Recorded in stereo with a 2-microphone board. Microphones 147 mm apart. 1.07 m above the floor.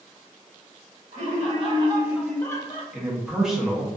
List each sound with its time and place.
1.1 s laughter: 55° right (ahead or behind), 1.2 m; by 2.8 s 45° left (ahead or behind), 0.7 m
2.9 s a man speaking: 5° right (ahead or behind), 0.7 m